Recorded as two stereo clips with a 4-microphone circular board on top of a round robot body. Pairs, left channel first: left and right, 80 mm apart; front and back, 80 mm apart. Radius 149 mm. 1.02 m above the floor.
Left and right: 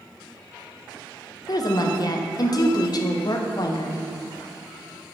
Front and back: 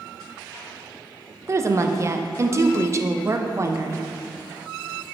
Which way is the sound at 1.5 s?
130° left.